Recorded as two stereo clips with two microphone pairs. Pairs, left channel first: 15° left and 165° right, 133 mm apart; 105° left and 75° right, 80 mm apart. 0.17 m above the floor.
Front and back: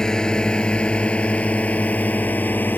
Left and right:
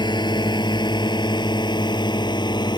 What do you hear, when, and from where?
0.0 s a drone: 100° left; by 2.8 s 90° left